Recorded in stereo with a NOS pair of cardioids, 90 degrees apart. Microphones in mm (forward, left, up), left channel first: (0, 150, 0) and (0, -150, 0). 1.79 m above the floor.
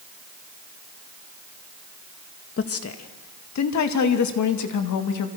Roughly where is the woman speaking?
Ahead left.